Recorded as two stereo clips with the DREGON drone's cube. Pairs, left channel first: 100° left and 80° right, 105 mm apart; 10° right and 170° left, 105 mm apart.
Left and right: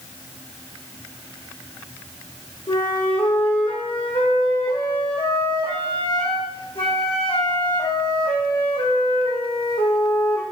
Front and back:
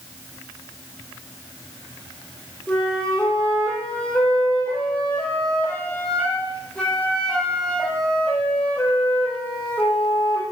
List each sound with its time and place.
2.7 s a flute: 70° left, 4 m